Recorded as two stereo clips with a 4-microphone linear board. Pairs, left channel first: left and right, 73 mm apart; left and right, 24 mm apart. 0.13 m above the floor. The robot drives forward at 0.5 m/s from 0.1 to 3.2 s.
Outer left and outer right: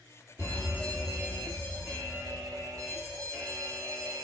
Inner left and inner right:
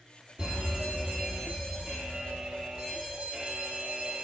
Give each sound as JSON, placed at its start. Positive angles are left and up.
{"t": 0.4, "sound": "a fire alarm", "side_deg": -35, "distance_m": 5.5}